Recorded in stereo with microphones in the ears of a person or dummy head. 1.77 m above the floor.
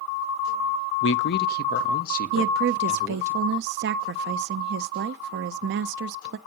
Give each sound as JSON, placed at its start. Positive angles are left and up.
{"t": 1.0, "sound": "a man speaking", "side_deg": 75, "distance_m": 0.5}
{"t": 2.3, "sound": "a woman speaking", "side_deg": -60, "distance_m": 0.5}